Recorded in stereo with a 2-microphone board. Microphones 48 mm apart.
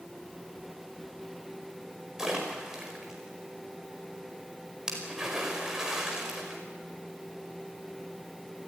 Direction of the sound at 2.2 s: 10° right (ahead or behind).